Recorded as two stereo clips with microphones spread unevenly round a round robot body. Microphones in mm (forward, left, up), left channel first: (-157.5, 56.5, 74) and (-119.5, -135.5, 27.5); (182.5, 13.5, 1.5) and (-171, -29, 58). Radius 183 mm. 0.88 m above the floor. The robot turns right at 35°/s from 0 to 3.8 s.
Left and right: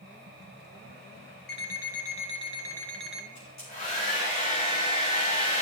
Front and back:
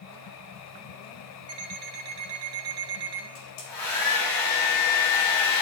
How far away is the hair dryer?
About 3.5 m.